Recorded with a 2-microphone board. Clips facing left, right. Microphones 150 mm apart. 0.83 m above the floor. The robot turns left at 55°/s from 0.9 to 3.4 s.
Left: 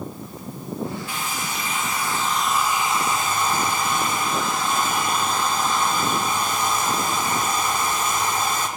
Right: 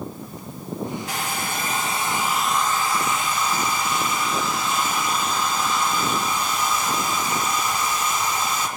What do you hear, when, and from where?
1.1 s a hair dryer: 105° right, 1.6 m; by 8.7 s 130° left, 1.6 m